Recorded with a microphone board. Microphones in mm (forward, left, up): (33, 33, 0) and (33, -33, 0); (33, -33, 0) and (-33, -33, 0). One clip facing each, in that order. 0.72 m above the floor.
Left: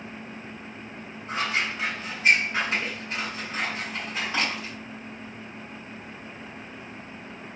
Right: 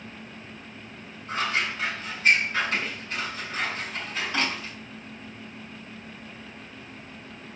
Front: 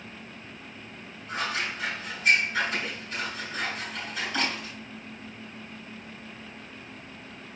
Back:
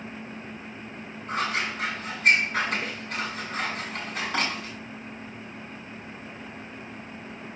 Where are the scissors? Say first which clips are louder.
Even, back 3 dB; 160° left, 7.5 m.